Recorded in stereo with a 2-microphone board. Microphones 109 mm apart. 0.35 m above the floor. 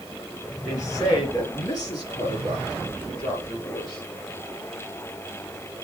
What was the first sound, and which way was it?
A woman speaking, 30° left (ahead or behind).